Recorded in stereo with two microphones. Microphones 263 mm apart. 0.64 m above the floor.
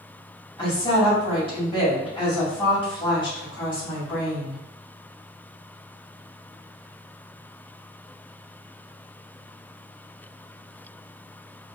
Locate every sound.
0.6 s a woman speaking: 20° left (ahead or behind), 1.7 m